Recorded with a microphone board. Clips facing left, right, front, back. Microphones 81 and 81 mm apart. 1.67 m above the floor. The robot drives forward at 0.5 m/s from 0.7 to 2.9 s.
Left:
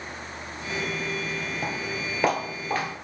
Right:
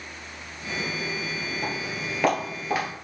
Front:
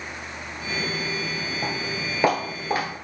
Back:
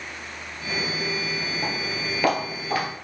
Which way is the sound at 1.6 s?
65° left.